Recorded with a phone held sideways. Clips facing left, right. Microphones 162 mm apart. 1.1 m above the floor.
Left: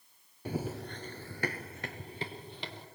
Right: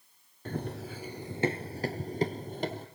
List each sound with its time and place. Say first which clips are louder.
0.5 s running footsteps: even; 10° left (ahead or behind), 1.2 m; by 2.9 s 45° right (ahead or behind), 1.9 m